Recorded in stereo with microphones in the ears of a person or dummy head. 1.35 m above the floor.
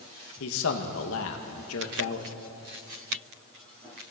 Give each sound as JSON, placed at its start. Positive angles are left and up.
{"t": 0.4, "sound": "a man speaking", "side_deg": 70, "distance_m": 1.9}